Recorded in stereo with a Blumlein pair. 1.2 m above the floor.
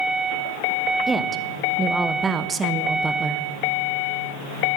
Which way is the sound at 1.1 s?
15° right.